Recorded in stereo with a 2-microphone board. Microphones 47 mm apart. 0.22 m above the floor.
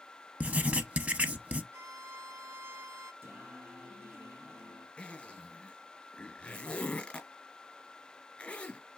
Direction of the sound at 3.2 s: 55° right (ahead or behind).